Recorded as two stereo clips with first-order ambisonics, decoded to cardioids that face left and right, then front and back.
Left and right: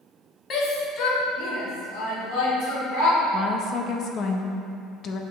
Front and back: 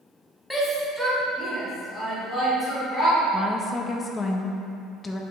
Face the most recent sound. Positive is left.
turn(degrees=70)